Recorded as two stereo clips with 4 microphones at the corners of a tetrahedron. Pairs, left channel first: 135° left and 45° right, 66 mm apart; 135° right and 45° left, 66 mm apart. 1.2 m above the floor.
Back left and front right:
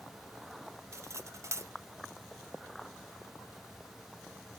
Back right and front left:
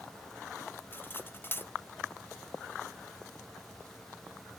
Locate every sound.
0.9 s cutlery clinking: 85° right, 0.6 m